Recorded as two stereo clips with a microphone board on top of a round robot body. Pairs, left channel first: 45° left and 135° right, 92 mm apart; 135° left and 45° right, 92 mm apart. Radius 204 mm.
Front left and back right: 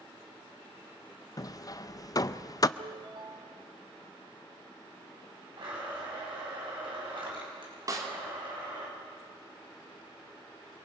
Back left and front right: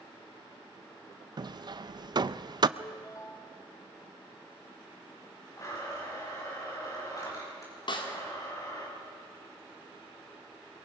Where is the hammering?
5° right, 0.6 m.